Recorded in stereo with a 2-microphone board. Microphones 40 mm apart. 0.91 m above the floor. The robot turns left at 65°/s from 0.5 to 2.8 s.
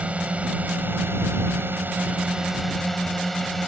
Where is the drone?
35° right; by 3.7 s 175° left.